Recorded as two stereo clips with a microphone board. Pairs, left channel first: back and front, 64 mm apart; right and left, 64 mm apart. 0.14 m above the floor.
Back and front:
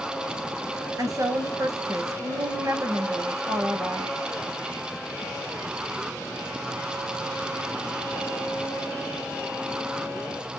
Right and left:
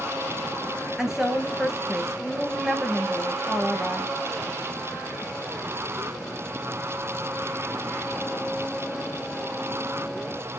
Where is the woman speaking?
10° left, 2.5 m.